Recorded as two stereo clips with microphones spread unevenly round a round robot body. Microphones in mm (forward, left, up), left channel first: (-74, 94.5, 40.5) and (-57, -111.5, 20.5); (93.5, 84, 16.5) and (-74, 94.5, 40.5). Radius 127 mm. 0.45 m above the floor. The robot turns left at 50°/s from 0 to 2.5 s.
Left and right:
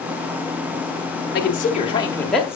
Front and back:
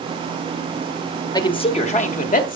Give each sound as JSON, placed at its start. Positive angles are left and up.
{"t": 1.3, "sound": "a man speaking", "azimuth_deg": 55, "distance_m": 1.5}